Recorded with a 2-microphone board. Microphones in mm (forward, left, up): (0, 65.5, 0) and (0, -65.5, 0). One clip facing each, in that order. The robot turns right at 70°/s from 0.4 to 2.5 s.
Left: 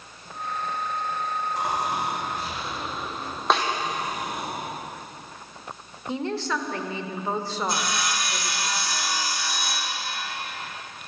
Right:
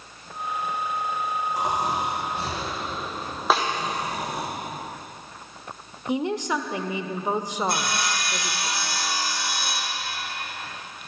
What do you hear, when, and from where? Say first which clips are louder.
1.6 s snoring: right 2 dB; 170° right, 5 m; by 4.5 s 105° right, 5 m
3.5 s a snare drum: right 1 dB; 5° right (ahead or behind), 2.5 m
6.1 s a woman speaking: right 3 dB; 15° right (ahead or behind), 1.0 m
7.7 s sawing: right 1 dB; 60° right (ahead or behind), 4.5 m